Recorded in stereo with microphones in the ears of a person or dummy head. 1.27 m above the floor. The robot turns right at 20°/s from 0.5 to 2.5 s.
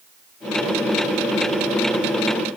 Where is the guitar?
No guitar in this recording.